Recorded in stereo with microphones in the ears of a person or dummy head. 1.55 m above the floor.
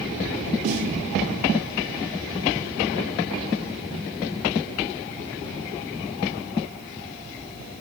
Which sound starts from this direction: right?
A snare drum, at 0.6 s.